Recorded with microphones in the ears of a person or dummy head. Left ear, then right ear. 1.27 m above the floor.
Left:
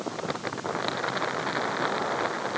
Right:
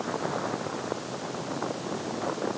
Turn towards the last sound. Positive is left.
No sound to turn to.